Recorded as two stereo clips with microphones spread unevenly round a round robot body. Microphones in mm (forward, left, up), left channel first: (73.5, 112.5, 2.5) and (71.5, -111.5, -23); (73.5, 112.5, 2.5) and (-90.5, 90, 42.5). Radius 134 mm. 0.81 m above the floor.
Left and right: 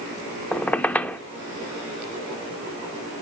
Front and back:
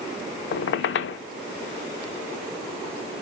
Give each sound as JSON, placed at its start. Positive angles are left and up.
{"t": 0.5, "sound": "a squeak", "azimuth_deg": 5, "distance_m": 0.8}